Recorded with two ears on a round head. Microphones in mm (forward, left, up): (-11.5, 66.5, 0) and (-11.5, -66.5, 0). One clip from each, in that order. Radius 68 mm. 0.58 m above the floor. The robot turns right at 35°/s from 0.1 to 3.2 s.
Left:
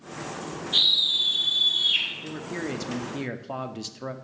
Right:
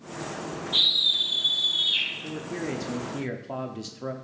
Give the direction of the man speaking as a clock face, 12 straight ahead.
9 o'clock.